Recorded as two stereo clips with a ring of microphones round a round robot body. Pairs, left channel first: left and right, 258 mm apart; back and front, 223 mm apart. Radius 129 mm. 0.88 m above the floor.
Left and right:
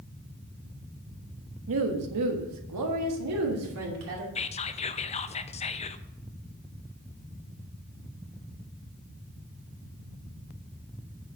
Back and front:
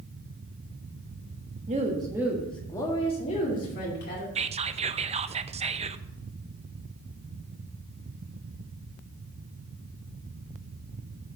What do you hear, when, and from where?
1.7 s a woman speaking: 60° right, 1.4 m; by 4.2 s 130° right, 2.5 m
4.3 s whispering: 40° left, 0.6 m